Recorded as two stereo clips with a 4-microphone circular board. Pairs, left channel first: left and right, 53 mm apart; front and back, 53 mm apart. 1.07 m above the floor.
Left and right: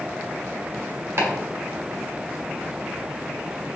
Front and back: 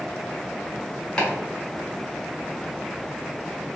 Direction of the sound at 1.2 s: 75° right.